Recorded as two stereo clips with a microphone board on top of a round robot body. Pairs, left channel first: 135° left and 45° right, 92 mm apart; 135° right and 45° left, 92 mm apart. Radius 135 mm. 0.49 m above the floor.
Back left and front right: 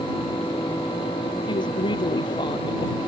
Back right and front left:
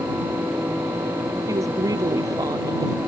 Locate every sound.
1.5 s a woman speaking: 100° left; by 3.0 s 95° left